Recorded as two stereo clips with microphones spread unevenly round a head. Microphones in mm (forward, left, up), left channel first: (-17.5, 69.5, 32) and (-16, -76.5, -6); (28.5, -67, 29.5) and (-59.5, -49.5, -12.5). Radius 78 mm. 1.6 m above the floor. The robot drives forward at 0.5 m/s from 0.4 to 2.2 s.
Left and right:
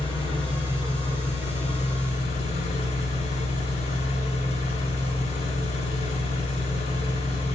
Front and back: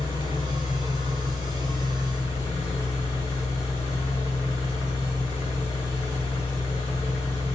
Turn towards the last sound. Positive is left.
turn(degrees=50)